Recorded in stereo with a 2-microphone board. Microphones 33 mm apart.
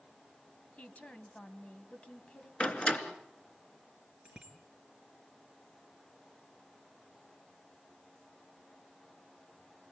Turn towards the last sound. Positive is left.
turn(degrees=-15)  # may be behind; listen again after turning